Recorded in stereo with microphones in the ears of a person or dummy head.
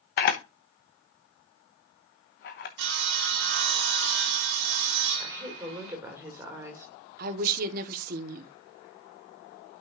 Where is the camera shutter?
35° left (ahead or behind), 0.8 m.